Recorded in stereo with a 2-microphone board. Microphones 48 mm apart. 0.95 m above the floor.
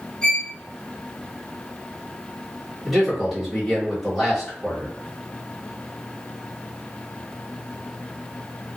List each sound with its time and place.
0.2 s a violin: 15° left (ahead or behind), 1.2 m
2.9 s a man speaking: 5° right (ahead or behind), 1.5 m